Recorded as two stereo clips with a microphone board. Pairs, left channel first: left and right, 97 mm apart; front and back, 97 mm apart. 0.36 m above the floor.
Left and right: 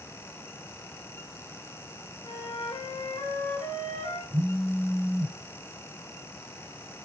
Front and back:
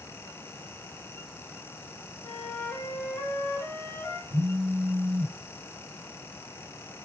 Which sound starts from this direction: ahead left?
A flute, at 2.2 s.